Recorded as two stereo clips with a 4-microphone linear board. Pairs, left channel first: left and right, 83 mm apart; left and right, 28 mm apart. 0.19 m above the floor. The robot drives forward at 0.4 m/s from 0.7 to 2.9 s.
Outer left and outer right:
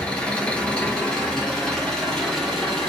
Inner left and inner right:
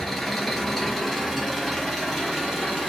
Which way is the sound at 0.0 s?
15° left (ahead or behind).